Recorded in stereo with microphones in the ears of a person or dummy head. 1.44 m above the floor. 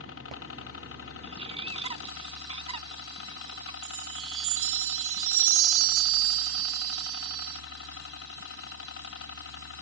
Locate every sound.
0.0 s a helicopter: 65° left (ahead or behind)
1.2 s a bird: 35° right (ahead or behind)
3.8 s a chime: 80° right